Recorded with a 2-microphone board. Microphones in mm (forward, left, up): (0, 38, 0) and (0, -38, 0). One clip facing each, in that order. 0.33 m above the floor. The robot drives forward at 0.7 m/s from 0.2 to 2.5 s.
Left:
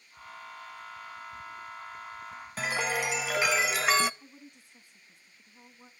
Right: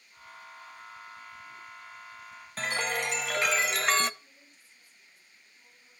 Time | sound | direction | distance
2.6 | a chime | 5° left (ahead or behind) | 0.7 m
4.2 | a woman speaking | 65° left (ahead or behind) | 3.5 m